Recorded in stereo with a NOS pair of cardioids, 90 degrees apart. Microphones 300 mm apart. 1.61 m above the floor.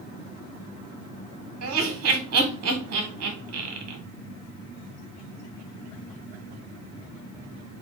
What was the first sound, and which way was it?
Laughter, 55° right.